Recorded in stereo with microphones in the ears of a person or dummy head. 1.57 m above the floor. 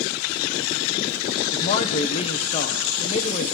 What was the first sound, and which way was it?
A man speaking, 35° left (ahead or behind).